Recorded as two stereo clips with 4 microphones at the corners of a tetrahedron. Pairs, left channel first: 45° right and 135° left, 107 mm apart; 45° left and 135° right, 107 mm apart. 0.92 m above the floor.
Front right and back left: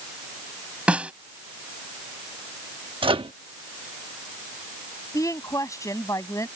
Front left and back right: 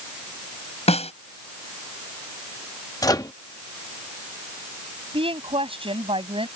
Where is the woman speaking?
105° right.